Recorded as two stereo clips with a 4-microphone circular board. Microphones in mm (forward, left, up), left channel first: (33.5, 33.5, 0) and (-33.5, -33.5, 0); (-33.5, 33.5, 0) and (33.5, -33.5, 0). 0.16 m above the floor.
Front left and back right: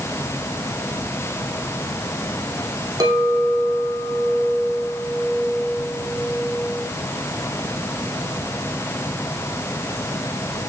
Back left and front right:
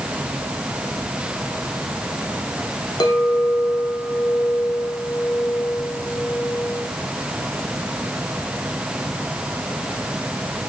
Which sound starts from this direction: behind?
A clink, at 3.0 s.